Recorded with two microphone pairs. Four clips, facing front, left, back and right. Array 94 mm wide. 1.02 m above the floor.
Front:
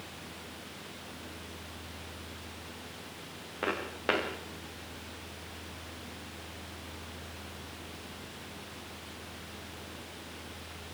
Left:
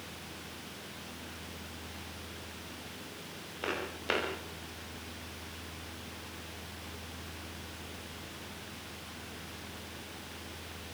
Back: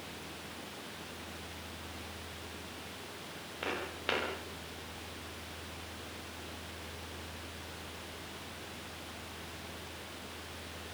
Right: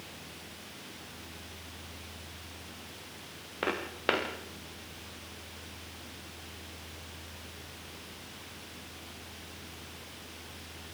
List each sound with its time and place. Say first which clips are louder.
3.6 s footsteps: right 4 dB, front 6 dB; 60° right, 5.5 m